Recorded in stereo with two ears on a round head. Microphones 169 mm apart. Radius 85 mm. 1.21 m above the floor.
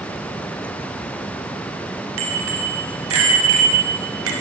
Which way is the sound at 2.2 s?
85° right.